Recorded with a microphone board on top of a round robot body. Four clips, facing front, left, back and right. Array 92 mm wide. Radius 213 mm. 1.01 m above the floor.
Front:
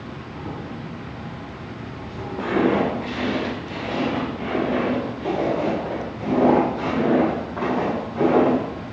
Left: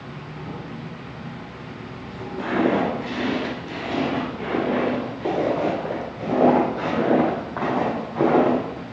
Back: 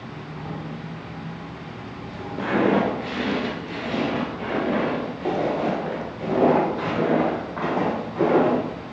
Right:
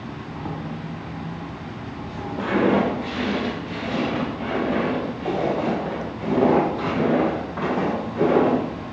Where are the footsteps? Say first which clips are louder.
Right 1 dB, even; straight behind, 1.3 m; by 8.6 s 110° left, 4.5 m.